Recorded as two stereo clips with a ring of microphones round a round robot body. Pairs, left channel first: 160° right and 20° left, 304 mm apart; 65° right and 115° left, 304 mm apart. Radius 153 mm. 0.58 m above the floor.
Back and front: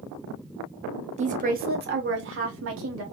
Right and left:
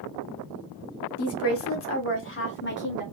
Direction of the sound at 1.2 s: 40° right.